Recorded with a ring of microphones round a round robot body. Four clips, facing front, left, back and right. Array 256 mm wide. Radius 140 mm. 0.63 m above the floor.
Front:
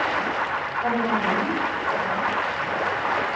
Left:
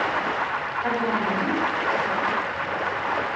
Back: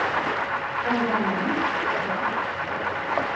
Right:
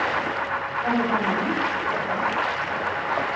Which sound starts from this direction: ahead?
A woman speaking, at 0.8 s.